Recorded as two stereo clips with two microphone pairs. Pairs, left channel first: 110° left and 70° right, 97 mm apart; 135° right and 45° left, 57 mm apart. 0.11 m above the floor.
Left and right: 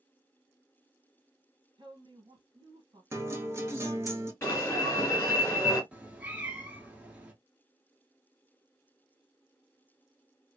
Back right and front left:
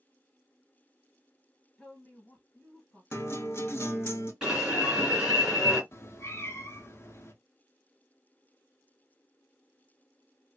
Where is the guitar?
120° right, 0.8 m.